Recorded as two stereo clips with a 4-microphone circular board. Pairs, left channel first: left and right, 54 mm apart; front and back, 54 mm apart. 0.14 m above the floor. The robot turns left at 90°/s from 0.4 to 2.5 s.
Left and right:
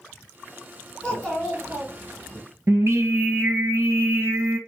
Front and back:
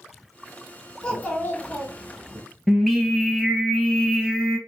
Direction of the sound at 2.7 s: 85° right.